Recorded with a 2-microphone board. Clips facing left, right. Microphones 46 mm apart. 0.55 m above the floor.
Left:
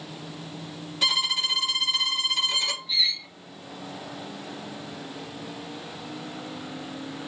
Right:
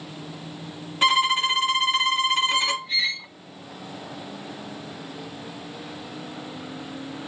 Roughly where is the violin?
Right.